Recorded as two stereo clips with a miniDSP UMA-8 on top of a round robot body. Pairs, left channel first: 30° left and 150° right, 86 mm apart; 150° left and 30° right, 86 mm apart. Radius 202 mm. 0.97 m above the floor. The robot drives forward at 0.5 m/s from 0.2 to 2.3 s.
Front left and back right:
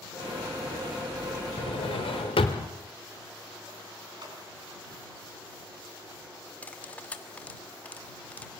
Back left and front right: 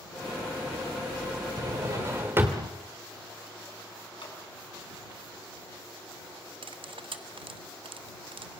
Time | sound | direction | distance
1.6 | a drawer | 25° left | 1.1 m
4.2 | a clap | 170° left | 7.5 m
6.6 | cutlery clinking | 45° right | 1.5 m